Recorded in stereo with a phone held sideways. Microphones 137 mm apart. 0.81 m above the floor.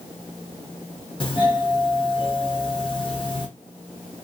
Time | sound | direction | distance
1.2 | a doorbell | 40° left (ahead or behind) | 1.0 m